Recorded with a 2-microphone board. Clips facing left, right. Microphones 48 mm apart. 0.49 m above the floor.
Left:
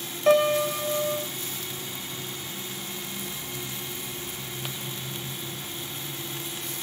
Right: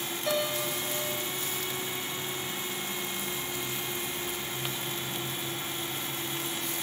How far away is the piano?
About 1.3 m.